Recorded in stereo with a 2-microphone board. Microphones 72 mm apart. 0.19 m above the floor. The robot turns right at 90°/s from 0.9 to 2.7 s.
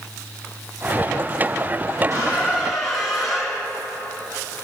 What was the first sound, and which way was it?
A squeak, 60° right.